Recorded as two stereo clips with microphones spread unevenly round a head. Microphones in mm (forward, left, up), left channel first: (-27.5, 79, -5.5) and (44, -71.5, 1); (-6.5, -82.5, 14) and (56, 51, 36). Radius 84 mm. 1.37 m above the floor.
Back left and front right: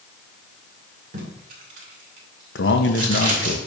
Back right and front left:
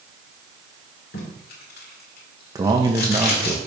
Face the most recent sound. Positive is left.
turn(degrees=135)